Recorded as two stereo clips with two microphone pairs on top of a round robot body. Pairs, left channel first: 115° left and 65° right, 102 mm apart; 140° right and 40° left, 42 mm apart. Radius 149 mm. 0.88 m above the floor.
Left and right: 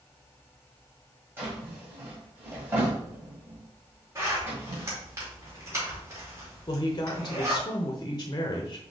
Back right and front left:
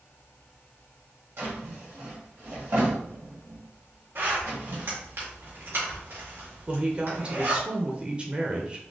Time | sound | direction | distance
1.4 | a drawer | 5° left | 1.5 m
4.2 | a zipper | straight ahead | 2 m
6.7 | a woman speaking | 105° left | 0.9 m